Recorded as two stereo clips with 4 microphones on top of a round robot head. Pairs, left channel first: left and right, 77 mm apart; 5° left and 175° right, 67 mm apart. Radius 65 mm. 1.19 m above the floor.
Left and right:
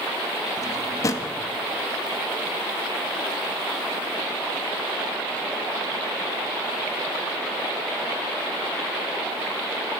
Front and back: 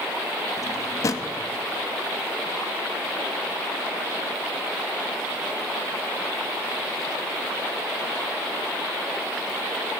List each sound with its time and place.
0.6 s a drawer: 45° left, 0.9 m